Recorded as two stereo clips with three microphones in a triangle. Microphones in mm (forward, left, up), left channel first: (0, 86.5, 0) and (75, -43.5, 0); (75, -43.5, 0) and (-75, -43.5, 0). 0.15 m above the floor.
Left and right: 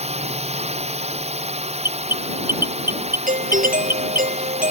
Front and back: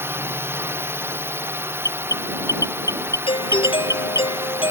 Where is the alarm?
65° right.